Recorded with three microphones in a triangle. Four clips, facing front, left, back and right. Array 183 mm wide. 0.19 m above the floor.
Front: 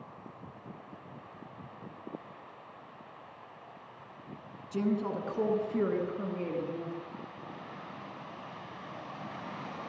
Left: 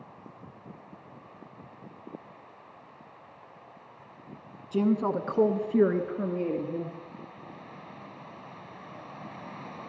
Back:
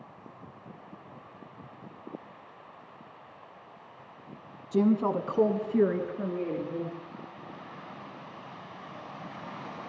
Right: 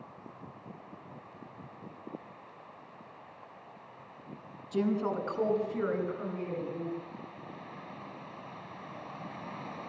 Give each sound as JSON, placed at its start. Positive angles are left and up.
{"t": 4.7, "sound": "a woman speaking", "azimuth_deg": 155, "distance_m": 2.0}